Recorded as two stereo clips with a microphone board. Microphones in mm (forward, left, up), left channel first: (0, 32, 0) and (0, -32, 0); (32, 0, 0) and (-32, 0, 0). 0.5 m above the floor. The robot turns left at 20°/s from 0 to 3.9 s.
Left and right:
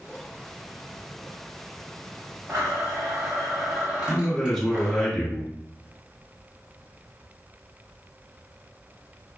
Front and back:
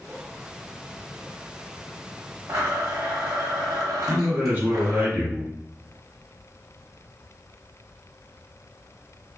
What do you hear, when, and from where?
2.5 s a blender: 140° right, 1.1 m; by 5.1 s 165° right, 1.1 m
4.1 s a man speaking: 165° left, 1.0 m